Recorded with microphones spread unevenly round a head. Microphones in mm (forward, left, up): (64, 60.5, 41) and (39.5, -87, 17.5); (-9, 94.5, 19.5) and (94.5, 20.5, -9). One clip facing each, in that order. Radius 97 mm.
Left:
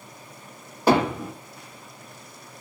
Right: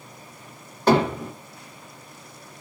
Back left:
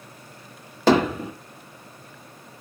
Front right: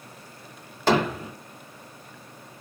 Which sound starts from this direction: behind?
Hammering, at 0.9 s.